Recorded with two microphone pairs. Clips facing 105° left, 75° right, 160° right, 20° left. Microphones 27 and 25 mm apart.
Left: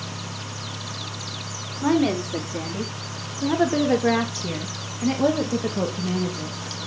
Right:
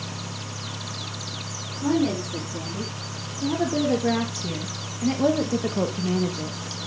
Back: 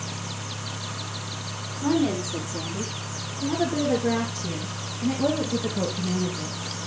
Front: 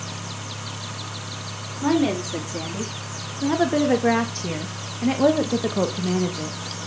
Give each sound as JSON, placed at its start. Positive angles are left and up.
{"t": 1.8, "sound": "a woman speaking", "azimuth_deg": 75, "distance_m": 3.0}